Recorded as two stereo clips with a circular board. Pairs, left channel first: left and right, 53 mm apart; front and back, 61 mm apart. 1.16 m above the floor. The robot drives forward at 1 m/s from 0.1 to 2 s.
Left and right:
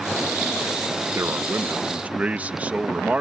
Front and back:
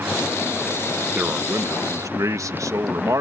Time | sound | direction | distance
1.1 | a man speaking | 115° right | ?